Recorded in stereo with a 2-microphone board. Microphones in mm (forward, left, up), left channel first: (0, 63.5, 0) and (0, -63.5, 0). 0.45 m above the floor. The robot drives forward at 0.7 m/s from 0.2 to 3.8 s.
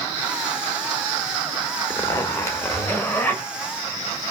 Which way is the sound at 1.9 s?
25° left (ahead or behind).